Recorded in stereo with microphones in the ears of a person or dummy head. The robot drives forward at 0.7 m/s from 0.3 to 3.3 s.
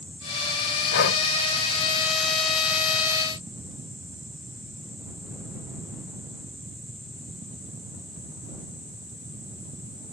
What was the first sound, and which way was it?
Breathing, 60° left (ahead or behind).